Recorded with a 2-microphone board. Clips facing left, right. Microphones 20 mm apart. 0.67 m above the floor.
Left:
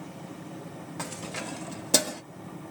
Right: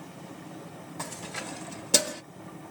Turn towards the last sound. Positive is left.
turn(degrees=-15)  # may be behind; listen again after turning